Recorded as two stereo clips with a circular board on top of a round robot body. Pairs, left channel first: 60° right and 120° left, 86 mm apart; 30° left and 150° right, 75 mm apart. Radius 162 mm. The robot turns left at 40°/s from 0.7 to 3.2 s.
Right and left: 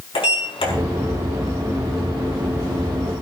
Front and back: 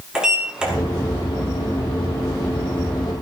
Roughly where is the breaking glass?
I don't hear breaking glass.